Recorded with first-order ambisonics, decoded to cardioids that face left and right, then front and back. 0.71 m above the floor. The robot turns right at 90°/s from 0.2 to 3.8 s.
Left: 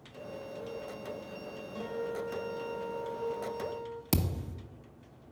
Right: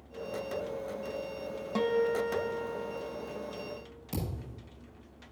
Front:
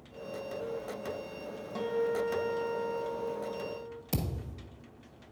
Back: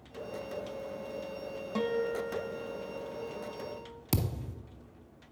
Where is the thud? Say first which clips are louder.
Left 4 dB, back 4 dB; 125° left, 0.9 m.